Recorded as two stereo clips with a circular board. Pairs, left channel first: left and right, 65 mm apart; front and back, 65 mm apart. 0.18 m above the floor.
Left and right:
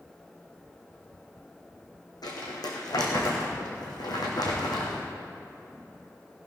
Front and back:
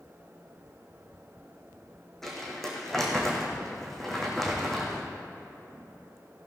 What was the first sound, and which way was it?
Crumpling, 85° left.